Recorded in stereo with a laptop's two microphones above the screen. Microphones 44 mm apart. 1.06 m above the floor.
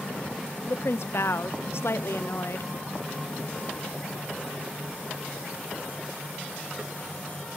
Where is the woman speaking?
65° left (ahead or behind), 0.5 m.